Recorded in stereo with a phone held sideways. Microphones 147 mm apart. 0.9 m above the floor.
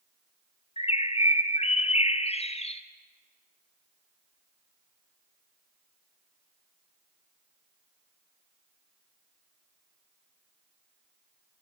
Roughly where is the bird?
Left.